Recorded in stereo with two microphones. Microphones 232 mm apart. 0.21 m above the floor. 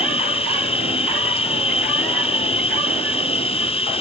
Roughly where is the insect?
Left.